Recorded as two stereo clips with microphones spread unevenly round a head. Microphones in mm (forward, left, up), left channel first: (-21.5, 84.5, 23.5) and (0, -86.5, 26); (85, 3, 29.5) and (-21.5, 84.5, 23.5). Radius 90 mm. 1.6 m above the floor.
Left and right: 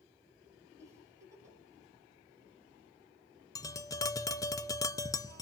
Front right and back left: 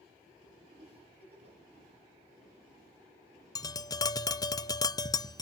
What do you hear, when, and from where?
0.8 s a giggle: 160° right, 7.5 m
3.5 s tapping: 25° left, 0.7 m